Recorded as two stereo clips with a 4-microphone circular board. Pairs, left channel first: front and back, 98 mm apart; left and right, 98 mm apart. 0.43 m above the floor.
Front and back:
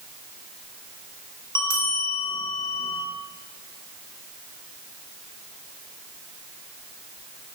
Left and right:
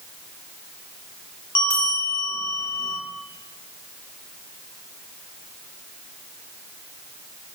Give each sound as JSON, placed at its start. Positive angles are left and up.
{"t": 1.6, "sound": "a bell", "azimuth_deg": 40, "distance_m": 1.3}